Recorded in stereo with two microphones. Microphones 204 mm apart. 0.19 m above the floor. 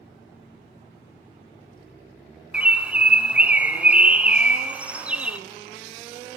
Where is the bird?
5° right (ahead or behind), 0.5 m.